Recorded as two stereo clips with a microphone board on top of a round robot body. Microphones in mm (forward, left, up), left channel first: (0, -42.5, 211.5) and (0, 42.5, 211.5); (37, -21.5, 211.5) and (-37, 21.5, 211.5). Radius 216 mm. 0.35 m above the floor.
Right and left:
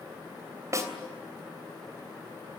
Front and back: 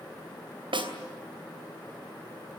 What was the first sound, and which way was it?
A snare drum, 140° left.